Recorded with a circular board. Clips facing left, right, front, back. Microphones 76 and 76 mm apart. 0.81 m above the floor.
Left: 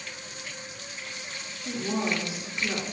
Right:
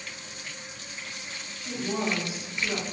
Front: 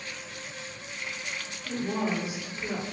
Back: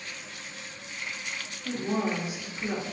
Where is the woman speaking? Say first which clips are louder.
Left 1 dB, back 1 dB; 140° left, 1.8 m.